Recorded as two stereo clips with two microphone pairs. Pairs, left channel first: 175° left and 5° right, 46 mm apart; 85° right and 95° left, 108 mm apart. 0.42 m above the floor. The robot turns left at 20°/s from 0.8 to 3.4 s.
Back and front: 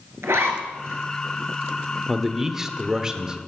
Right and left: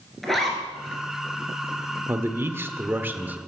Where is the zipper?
Straight ahead, 2.5 m.